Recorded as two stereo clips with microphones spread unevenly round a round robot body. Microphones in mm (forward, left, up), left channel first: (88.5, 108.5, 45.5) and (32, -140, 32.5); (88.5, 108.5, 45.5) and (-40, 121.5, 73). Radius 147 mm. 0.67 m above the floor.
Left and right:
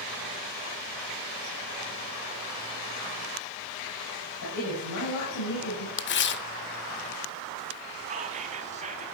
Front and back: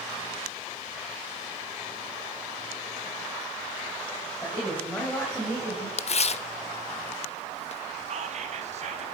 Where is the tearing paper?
35° left, 0.7 m.